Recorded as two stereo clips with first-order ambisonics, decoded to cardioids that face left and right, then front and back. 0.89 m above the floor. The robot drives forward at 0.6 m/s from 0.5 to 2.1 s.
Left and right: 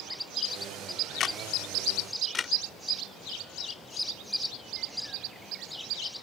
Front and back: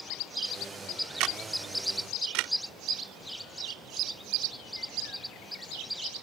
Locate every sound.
1.2 s a camera shutter: 150° left; by 2.5 s 160° left